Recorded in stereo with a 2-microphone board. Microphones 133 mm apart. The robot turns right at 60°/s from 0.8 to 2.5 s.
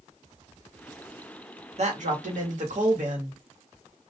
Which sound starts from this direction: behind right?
A man speaking, at 1.8 s.